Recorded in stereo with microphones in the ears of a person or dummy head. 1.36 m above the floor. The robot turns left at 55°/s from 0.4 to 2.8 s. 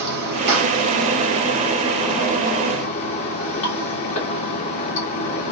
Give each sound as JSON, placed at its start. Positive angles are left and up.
{"t": 0.0, "sound": "running water", "azimuth_deg": -95, "distance_m": 2.0}